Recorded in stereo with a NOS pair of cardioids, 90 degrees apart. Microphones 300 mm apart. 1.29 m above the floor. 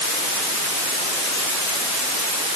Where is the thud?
I don't hear a thud.